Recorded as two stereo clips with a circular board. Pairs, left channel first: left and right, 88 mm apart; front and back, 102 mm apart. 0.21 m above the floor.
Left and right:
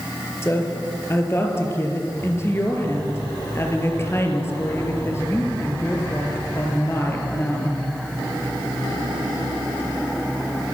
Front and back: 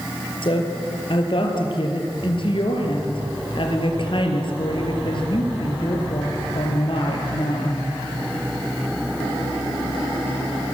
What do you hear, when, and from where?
0.4 s a woman speaking: 30° left, 4.5 m